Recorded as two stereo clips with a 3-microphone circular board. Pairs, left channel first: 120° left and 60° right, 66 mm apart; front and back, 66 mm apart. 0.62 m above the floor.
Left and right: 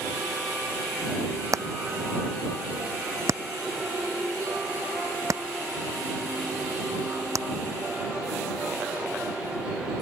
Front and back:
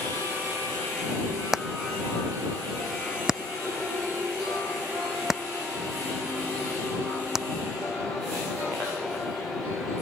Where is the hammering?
95° right.